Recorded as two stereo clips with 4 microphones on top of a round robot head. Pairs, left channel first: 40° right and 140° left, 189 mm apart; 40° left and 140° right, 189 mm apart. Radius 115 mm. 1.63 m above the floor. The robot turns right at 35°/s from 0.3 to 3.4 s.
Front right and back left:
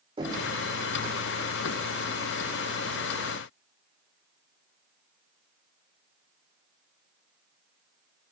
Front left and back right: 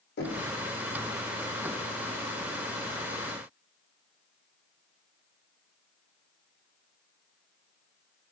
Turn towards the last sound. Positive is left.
turn(degrees=-175)